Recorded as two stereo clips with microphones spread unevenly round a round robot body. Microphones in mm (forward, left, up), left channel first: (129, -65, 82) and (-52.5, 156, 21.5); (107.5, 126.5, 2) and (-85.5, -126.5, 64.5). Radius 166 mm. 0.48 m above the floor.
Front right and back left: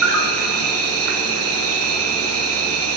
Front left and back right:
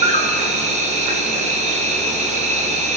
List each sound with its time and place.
0.0 s an insect: 160° left, 0.9 m